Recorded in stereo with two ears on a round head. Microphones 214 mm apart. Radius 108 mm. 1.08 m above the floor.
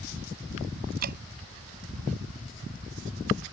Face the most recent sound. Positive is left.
turn(degrees=-40)  # may be behind; listen again after turning